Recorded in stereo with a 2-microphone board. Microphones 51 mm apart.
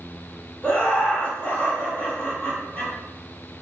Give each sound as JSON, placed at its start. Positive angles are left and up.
{"t": 0.6, "sound": "laughter", "side_deg": 35, "distance_m": 1.7}